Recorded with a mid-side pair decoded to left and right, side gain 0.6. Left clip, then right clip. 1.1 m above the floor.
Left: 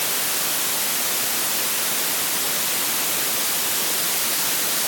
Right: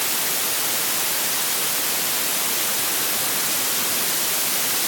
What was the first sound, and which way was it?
Only background noise.